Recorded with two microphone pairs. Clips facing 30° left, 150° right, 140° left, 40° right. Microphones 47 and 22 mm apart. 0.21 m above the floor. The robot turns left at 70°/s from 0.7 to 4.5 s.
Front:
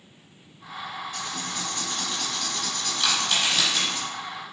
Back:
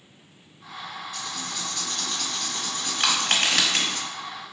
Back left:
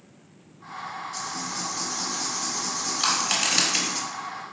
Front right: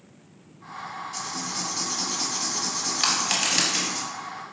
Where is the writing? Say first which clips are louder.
Front 1 dB, front right 2 dB; 30° left, 0.8 m; by 4.0 s 170° right, 0.8 m.